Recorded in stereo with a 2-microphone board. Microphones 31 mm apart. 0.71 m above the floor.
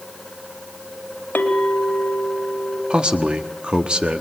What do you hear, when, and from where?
1.4 s a clink: 75° left (ahead or behind), 1.7 m
2.9 s a man speaking: 30° right (ahead or behind), 1.3 m